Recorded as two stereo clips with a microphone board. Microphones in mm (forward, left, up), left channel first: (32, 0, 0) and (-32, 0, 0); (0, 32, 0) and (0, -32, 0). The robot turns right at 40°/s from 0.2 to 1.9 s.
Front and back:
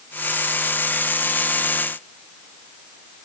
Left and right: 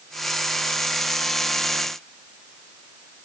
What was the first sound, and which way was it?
Only background noise.